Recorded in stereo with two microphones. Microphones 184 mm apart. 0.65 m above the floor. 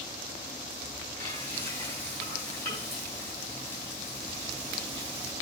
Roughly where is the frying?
Centre.